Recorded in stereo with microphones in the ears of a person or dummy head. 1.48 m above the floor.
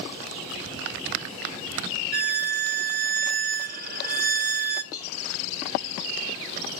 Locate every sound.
2.1 s a violin: 40° right (ahead or behind), 0.7 m
4.9 s a cowbell: 20° left (ahead or behind), 1.7 m